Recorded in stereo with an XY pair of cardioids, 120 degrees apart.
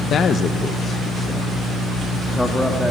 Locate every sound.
0.1 s a man speaking: 55° left, 0.7 m; by 2.9 s 5° left, 2 m